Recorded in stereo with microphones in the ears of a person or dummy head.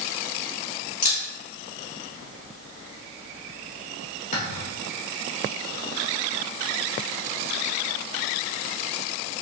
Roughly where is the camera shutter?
Left.